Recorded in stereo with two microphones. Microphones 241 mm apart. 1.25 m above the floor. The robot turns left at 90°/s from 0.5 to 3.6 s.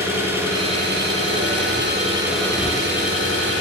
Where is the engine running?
10° right, 4.5 m; by 3.6 s 70° left, 4.5 m.